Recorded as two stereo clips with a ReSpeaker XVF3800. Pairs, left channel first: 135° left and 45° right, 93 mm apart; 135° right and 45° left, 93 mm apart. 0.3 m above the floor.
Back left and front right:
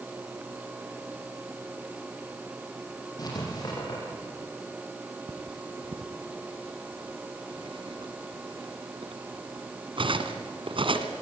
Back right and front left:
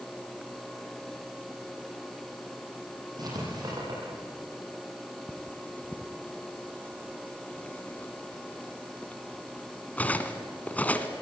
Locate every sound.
3.2 s writing: 85° left, 9 m
5.3 s cutlery clinking: 65° right, 1.8 m